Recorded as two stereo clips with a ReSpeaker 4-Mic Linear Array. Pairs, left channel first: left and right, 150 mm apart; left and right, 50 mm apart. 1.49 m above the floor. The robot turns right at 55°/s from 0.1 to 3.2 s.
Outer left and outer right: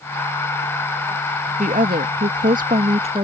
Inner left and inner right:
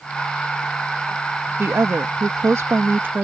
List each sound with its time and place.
1.6 s a woman speaking: 120° right; by 3.2 s 35° right